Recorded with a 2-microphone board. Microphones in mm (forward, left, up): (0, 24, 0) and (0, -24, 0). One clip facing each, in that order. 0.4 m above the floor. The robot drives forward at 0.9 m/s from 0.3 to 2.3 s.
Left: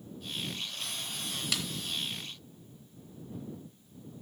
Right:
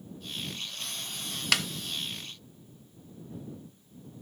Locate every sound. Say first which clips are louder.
1.5 s a snare drum: right 9 dB; 65° right (ahead or behind), 0.6 m; by 1.7 s 55° right (ahead or behind), 0.7 m